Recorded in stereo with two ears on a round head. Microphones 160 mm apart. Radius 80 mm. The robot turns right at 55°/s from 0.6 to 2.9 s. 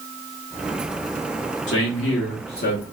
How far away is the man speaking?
About 1.9 m.